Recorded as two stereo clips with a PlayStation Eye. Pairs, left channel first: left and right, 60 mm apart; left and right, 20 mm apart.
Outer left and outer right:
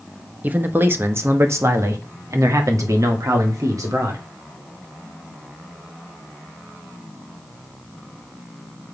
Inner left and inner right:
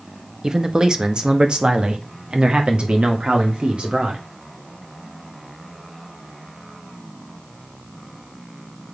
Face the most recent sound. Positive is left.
turn(degrees=-70)  # may be behind; listen again after turning